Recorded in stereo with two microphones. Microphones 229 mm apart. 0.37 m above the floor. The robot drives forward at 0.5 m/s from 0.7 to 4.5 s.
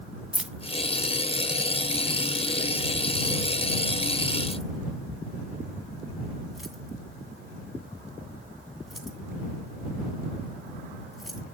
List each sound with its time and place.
0.3 s keys jangling: 5° right (ahead or behind), 0.7 m; by 11.4 s centre (ahead or behind), 2.5 m